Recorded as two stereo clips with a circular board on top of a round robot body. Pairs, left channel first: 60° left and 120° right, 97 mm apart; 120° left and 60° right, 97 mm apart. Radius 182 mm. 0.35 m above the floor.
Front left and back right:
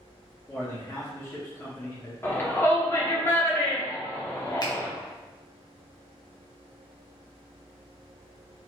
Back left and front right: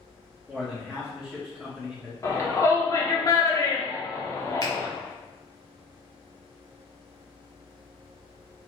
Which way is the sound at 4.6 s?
90° left.